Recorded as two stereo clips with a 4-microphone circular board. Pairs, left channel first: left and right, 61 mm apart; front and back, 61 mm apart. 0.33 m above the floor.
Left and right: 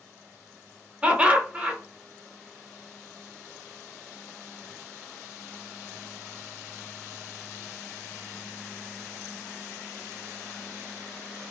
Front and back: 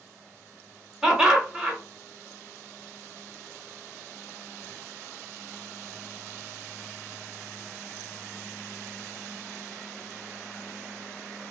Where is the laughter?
120° right, 1.0 m.